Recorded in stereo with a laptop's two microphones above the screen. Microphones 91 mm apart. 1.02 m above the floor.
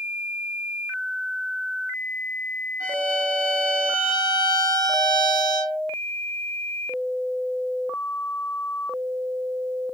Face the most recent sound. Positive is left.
turn(degrees=-40)  # may be behind; listen again after turning